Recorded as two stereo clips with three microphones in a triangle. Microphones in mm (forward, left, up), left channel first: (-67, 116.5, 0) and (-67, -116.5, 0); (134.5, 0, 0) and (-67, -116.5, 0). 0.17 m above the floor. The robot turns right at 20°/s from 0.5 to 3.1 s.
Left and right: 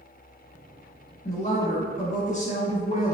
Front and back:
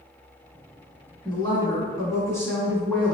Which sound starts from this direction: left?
A woman speaking, at 1.2 s.